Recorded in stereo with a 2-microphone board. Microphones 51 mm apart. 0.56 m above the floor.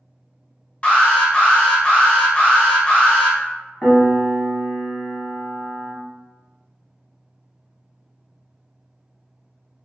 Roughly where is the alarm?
Left.